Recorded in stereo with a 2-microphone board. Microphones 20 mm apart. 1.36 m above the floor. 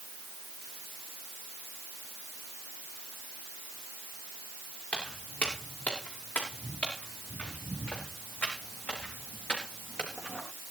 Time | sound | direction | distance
4.9 | footsteps | 70° left (ahead or behind) | 5.5 m